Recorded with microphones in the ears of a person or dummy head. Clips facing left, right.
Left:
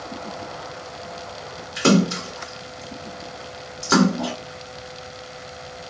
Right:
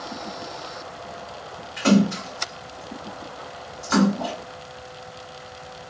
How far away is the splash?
About 1.7 m.